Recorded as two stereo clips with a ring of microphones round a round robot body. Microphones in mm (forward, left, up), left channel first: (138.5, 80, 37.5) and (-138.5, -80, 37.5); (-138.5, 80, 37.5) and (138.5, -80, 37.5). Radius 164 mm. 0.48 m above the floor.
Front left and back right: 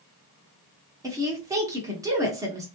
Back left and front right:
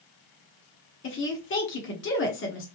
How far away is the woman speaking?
About 1.1 m.